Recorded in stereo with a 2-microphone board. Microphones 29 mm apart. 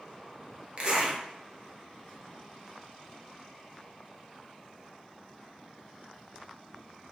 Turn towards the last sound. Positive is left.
turn(degrees=-40)  # may be behind; listen again after turning